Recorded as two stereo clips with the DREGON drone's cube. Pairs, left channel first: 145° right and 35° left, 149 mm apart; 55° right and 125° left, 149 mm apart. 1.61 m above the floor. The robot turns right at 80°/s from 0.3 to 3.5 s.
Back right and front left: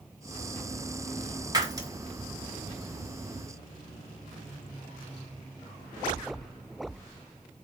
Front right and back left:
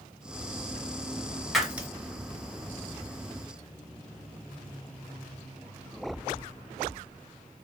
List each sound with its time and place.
1.5 s breaking glass: 35° left, 0.7 m; by 1.9 s 60° left, 0.7 m